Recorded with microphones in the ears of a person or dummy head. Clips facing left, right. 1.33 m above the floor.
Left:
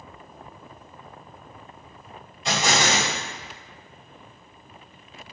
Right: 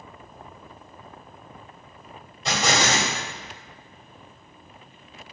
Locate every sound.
2.5 s an explosion: 40° right (ahead or behind), 2.0 m